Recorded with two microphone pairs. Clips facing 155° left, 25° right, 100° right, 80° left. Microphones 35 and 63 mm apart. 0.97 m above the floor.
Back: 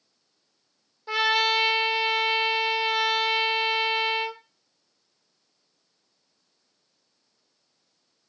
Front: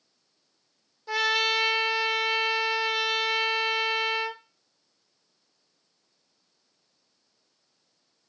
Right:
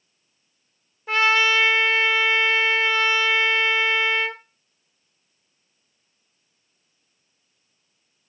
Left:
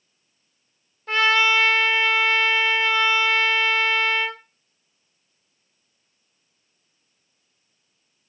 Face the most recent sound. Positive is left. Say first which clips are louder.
# back 2 dB, even
turn(degrees=-170)